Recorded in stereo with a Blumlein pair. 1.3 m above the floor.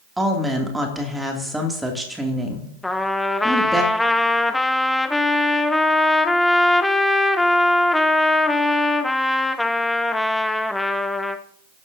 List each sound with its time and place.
0.2 s a woman speaking: 5° right, 2.5 m
2.8 s a trumpet: 5° left, 0.7 m